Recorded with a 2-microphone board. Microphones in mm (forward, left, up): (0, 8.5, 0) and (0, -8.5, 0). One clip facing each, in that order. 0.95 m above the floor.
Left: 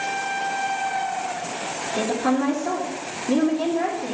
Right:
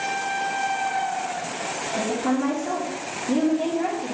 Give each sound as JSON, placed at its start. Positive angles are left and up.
{"t": 1.9, "sound": "a woman speaking", "side_deg": 45, "distance_m": 1.7}